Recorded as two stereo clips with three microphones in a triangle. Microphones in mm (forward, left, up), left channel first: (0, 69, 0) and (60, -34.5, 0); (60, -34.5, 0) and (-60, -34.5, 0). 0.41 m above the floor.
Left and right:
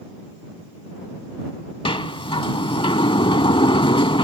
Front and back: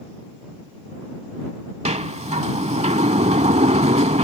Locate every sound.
1.9 s a sliding door: 160° left